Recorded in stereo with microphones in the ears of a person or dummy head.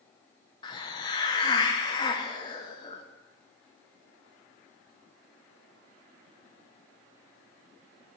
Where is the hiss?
25° left (ahead or behind), 0.7 m.